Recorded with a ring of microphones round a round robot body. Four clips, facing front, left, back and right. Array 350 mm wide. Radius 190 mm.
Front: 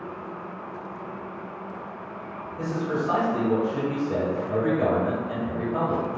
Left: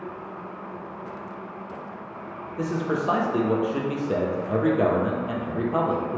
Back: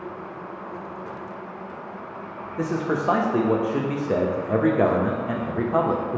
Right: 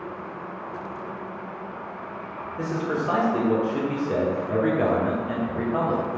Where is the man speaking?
165° left, 0.6 m.